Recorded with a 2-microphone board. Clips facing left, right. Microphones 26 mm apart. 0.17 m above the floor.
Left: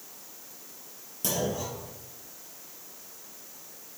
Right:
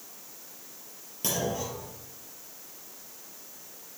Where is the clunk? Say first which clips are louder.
Even; 25° right (ahead or behind), 3.5 m.